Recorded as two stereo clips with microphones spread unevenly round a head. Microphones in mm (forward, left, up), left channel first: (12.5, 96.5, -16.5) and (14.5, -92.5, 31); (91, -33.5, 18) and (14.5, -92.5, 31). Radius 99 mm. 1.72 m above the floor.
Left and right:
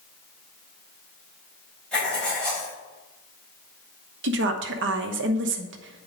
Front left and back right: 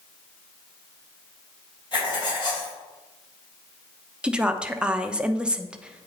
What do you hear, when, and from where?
1.9 s writing: straight ahead, 3.5 m
4.2 s a woman speaking: 60° right, 0.9 m